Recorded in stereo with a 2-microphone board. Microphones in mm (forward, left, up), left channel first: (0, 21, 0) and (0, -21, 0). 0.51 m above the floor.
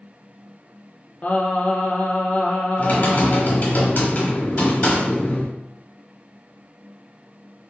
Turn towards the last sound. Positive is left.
turn(degrees=45)  # may be behind; listen again after turning